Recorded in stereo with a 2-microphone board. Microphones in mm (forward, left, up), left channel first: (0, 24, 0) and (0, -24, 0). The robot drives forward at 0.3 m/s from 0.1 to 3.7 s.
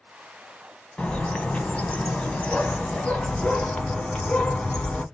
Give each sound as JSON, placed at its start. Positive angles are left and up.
{"t": 1.0, "sound": "a bird", "side_deg": 20, "distance_m": 0.7}